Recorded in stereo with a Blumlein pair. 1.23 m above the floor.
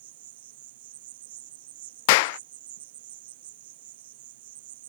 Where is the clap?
50° left.